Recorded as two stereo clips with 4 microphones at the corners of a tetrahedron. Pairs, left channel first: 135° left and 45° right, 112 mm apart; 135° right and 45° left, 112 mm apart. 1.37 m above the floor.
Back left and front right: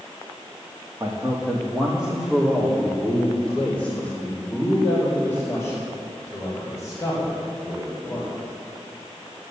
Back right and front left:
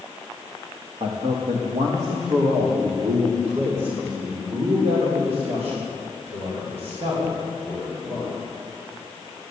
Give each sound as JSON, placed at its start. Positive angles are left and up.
{"t": 1.0, "sound": "a man speaking", "azimuth_deg": 20, "distance_m": 1.9}